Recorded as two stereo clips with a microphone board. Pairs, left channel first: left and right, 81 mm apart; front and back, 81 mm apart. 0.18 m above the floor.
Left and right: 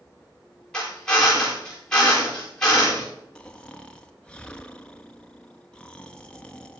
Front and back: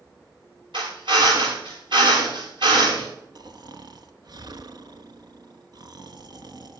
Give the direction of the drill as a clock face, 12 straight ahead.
6 o'clock.